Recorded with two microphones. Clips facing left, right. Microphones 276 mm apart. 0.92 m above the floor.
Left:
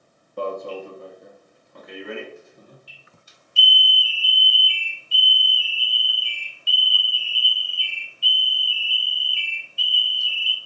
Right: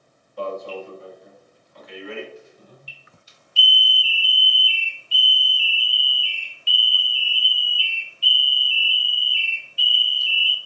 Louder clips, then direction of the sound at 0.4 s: Left 1 dB; 55° left (ahead or behind).